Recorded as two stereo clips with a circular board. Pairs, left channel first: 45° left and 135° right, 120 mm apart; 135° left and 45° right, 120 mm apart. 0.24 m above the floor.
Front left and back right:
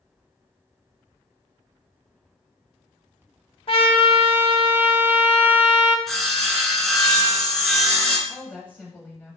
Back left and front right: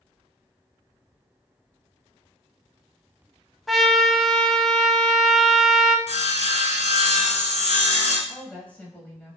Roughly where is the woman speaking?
Left.